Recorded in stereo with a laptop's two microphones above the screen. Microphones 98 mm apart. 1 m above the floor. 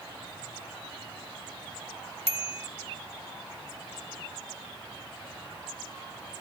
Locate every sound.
2.3 s a bicycle bell: 80° left